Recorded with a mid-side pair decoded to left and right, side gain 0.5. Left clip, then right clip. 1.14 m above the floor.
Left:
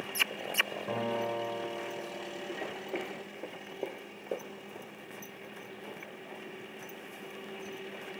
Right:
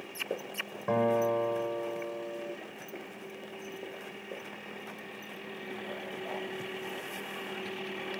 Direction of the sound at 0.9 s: 40° right.